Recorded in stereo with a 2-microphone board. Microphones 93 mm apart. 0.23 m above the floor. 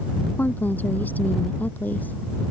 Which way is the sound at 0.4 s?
20° left (ahead or behind).